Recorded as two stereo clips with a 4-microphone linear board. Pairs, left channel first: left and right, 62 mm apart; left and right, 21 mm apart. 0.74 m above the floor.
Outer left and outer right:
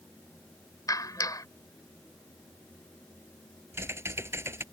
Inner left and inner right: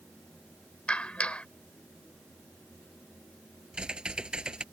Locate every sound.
0.9 s a clap: 75° left (ahead or behind)
3.7 s typing on a keyboard: 45° right (ahead or behind)